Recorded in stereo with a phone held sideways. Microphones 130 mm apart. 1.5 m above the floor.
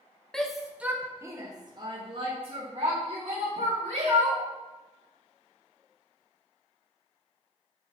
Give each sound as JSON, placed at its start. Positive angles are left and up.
{"t": 0.3, "sound": "a shout", "side_deg": 5, "distance_m": 0.9}